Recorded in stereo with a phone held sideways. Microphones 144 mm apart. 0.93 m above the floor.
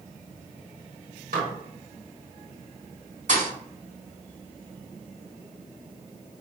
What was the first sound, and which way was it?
Dishes clattering, 80° right.